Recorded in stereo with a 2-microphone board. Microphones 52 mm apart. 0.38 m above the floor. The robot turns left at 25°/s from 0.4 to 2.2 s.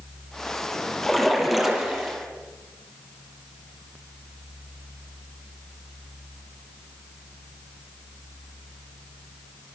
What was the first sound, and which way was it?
A splash, 10° left (ahead or behind).